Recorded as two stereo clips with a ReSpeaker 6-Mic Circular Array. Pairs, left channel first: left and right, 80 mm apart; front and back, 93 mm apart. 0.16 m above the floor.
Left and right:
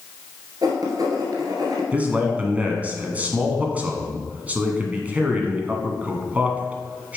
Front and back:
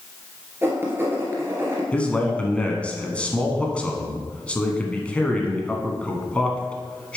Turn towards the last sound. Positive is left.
turn(degrees=-55)